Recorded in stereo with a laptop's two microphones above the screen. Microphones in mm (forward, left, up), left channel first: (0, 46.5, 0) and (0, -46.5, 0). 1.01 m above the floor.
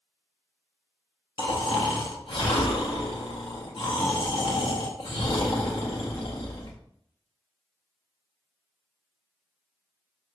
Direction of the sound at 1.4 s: 65° left (ahead or behind).